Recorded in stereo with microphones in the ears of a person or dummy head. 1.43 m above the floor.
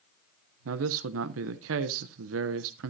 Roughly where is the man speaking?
Right.